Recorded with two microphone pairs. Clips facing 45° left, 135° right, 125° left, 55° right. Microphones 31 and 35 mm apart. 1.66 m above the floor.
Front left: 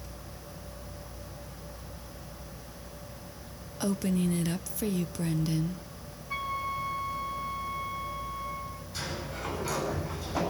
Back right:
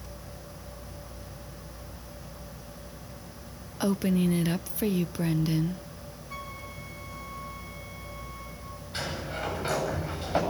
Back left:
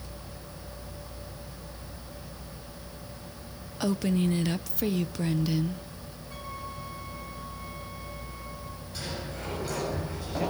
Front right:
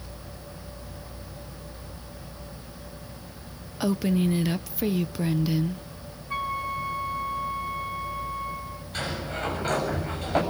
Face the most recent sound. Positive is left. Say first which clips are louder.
# back right 4 dB, front right 6 dB
turn(degrees=-90)